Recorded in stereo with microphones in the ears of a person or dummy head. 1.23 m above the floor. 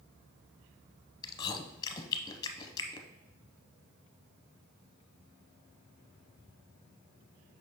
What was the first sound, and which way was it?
Chewing, 25° left (ahead or behind).